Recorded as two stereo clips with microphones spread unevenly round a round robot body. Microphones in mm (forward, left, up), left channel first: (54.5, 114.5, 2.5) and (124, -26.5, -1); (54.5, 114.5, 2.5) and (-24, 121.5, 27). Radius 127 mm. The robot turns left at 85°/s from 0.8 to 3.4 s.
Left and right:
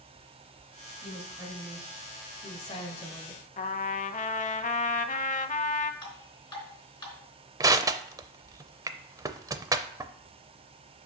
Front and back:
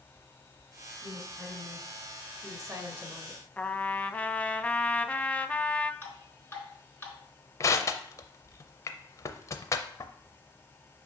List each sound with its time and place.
1.0 s a woman speaking: 90° right, 1.3 m; by 3.4 s 65° left, 1.3 m
3.6 s a trumpet: 70° left, 0.6 m
6.0 s dripping: 55° left, 3.5 m
7.6 s crushing: straight ahead, 0.5 m